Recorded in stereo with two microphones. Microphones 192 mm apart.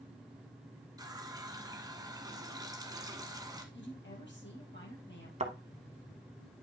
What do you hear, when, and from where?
1.0 s a running tap: 20° right (ahead or behind), 1.0 m
3.7 s a woman speaking: 70° left (ahead or behind), 3.5 m
5.4 s a thud: 35° right (ahead or behind), 0.9 m